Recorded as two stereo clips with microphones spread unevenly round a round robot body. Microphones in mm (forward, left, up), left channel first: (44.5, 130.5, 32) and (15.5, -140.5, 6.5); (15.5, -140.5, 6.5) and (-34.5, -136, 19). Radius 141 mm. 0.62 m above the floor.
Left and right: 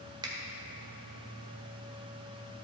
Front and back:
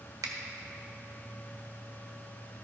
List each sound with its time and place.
0.2 s a finger snap: 170° right, 1.4 m